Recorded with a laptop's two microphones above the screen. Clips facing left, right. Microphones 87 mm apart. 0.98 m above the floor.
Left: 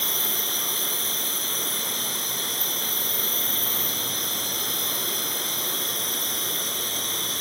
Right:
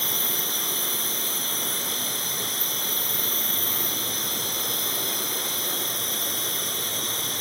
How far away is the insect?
About 3.5 m.